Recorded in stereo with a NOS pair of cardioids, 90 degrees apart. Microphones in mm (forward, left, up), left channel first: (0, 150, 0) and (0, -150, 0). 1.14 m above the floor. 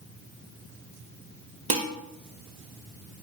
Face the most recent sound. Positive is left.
turn(degrees=-25)